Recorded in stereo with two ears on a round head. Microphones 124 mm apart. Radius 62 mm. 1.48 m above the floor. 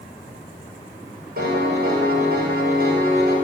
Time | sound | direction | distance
1.4 | a piano | 70° right (ahead or behind) | 7 m